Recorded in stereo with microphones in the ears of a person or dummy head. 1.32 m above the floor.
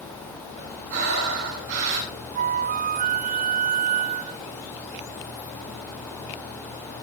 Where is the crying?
I don't hear crying.